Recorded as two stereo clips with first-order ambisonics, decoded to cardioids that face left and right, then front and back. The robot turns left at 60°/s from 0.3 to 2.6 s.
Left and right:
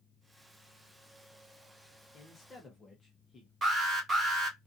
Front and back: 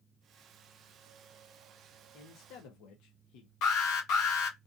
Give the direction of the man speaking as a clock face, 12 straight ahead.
11 o'clock.